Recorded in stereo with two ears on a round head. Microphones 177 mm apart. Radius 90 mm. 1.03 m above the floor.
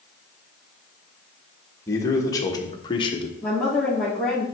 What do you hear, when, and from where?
1.9 s a man speaking: 15° left (ahead or behind), 1.7 m; by 3.3 s 30° left (ahead or behind), 1.0 m
3.4 s a woman speaking: centre (ahead or behind), 2.5 m